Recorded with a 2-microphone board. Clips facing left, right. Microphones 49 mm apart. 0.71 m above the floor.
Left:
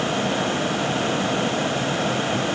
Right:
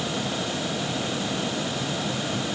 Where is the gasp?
I don't hear a gasp.